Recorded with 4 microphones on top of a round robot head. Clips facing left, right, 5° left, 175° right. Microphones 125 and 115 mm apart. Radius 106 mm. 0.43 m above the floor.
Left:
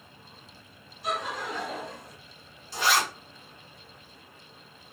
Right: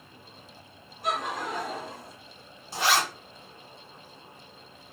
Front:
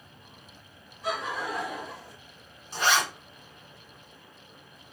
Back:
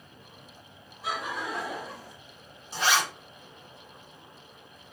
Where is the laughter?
90° right, 1.4 m; by 2.1 s 150° right, 1.4 m.